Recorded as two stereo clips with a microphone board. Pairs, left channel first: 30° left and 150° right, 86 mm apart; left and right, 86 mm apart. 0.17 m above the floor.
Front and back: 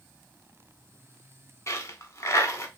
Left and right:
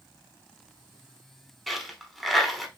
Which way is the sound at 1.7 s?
5° left.